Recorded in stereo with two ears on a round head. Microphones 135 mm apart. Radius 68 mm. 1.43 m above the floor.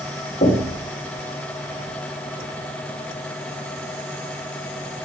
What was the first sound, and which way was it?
Knocking, 50° left (ahead or behind).